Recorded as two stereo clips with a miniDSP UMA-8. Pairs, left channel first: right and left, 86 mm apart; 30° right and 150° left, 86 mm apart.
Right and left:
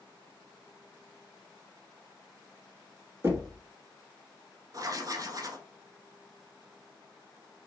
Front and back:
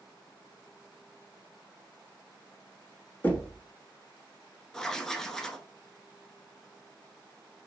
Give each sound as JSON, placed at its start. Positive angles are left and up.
{"t": 3.2, "sound": "knocking", "azimuth_deg": 35, "distance_m": 1.1}
{"t": 4.7, "sound": "writing", "azimuth_deg": 55, "distance_m": 0.6}